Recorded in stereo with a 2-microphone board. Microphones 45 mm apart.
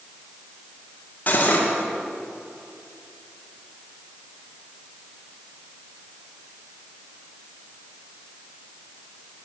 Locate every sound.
1.3 s cutlery clinking: 40° left (ahead or behind), 1.9 m